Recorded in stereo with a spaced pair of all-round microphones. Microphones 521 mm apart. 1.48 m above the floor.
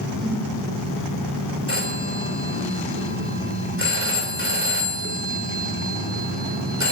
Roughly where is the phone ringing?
Right.